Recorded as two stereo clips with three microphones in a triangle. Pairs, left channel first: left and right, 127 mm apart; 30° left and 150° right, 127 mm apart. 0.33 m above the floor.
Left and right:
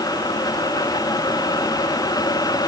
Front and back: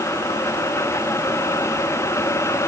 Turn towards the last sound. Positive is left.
No sound to turn to.